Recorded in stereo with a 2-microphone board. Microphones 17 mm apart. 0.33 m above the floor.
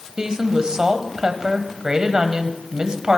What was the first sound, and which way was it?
A woman speaking, 45° right (ahead or behind).